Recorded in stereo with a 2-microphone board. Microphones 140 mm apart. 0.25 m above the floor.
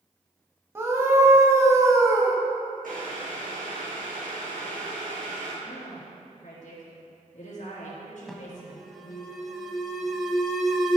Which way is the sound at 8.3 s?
Centre (ahead or behind).